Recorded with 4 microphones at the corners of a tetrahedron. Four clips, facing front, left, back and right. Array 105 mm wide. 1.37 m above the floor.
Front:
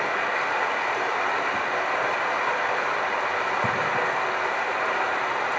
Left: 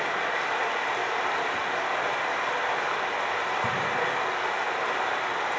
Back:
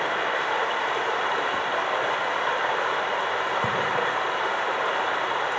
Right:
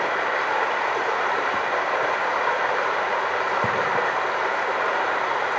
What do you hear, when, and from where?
0.0 s running water: 115° right, 1.6 m